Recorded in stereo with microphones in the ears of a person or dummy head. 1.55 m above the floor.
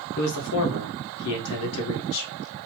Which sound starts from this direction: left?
A man speaking, at 0.2 s.